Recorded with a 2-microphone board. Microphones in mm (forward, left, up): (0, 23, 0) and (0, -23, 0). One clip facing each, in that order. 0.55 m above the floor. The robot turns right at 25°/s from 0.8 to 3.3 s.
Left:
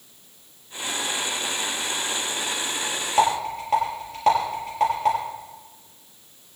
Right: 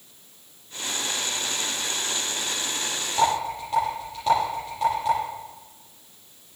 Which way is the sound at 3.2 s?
80° left.